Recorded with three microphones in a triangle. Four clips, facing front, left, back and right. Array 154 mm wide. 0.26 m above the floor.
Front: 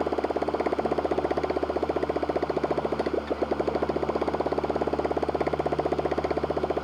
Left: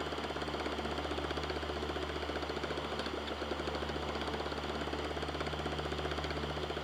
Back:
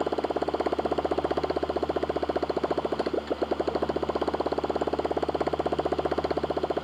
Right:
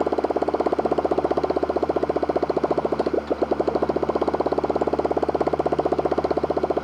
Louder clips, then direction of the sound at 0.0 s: Right 17 dB, front 1 dB; 85° right.